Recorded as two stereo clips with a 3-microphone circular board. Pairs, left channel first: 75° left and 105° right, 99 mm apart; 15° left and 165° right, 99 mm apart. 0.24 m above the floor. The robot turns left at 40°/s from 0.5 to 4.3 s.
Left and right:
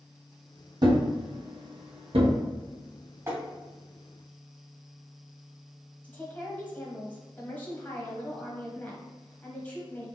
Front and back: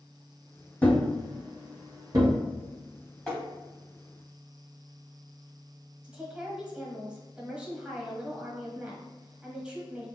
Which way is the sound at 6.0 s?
125° left.